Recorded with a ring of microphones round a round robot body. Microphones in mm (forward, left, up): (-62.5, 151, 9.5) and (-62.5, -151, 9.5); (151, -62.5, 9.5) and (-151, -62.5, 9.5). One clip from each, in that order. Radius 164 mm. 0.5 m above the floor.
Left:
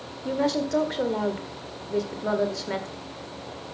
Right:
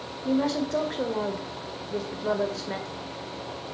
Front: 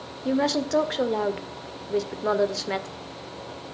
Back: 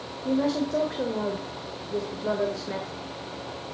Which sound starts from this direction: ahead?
A woman speaking, at 0.2 s.